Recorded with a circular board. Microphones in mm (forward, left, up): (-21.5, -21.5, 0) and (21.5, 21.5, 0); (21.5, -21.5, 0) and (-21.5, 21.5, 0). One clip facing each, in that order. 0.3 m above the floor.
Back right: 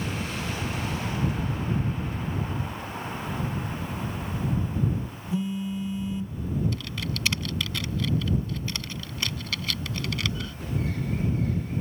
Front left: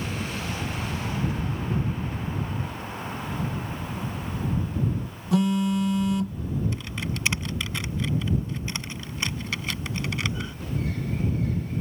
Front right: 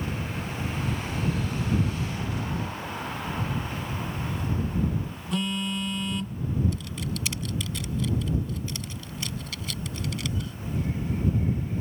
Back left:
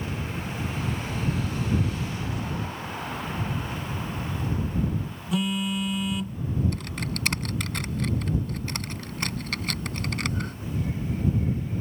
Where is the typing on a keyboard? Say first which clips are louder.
Front left 1 dB, back left 1 dB; 110° left.